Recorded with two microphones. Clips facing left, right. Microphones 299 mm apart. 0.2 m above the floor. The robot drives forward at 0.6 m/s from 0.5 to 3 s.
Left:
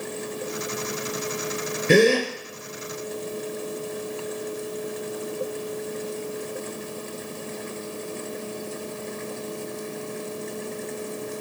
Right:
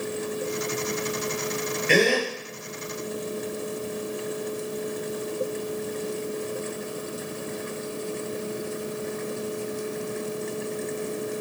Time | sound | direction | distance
1.9 | a gasp | 50° left (ahead or behind) | 2.5 m